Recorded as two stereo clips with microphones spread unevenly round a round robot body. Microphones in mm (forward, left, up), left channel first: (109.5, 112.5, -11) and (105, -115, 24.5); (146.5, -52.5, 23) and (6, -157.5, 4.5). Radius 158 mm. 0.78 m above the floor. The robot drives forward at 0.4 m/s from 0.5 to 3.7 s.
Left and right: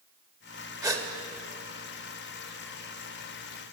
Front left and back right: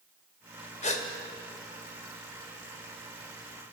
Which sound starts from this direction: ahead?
A gasp, at 0.8 s.